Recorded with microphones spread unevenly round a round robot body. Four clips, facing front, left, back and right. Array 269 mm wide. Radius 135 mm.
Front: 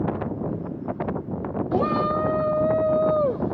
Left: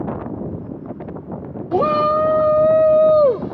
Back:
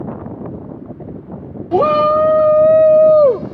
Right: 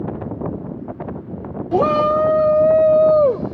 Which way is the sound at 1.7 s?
170° left.